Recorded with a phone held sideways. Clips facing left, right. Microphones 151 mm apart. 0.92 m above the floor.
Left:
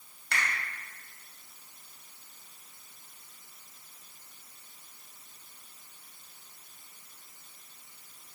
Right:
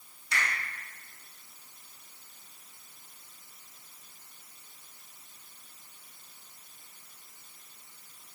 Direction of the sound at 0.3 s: 80° left.